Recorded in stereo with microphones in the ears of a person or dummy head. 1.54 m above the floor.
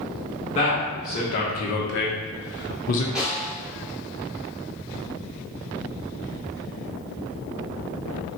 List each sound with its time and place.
0.6 s a man speaking: 40° left (ahead or behind), 1.6 m
3.1 s a snare drum: 10° right (ahead or behind), 1.5 m